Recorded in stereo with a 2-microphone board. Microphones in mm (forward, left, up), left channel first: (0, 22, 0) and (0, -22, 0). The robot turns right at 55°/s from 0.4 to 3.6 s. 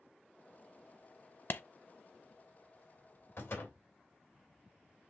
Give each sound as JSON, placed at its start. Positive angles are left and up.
{"t": 1.5, "sound": "a clap", "side_deg": 55, "distance_m": 0.6}
{"t": 3.4, "sound": "a door slam", "side_deg": 75, "distance_m": 2.5}